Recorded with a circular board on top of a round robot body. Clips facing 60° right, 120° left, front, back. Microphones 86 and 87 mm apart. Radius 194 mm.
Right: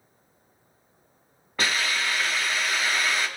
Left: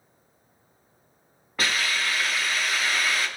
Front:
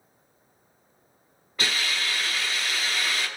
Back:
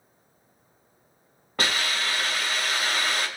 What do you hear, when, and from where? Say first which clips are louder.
1.6 s a hiss: even, back 2 dB; 150° right, 3 m